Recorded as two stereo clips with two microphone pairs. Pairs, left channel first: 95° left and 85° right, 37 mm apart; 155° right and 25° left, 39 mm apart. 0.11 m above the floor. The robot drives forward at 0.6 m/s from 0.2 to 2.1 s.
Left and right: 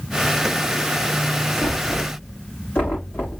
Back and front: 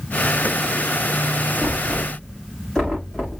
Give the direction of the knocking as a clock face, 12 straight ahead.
8 o'clock.